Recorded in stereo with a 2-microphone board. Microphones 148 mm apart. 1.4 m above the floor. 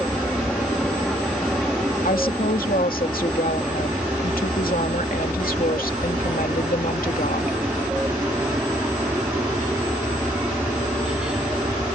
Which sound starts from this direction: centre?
An aircraft, at 0.0 s.